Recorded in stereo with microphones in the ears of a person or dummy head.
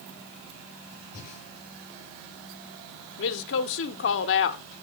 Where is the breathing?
40° left (ahead or behind), 9 m.